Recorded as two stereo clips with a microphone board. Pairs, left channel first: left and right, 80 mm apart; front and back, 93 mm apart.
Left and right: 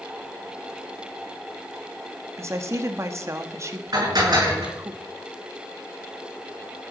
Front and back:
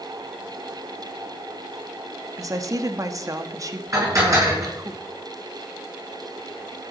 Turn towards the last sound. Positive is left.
turn(degrees=-125)